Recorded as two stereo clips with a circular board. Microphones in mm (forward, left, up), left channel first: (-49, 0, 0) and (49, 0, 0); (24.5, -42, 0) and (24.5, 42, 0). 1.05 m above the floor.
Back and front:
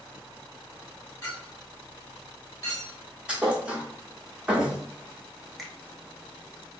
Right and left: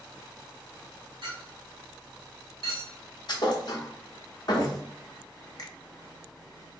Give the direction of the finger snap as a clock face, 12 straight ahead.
3 o'clock.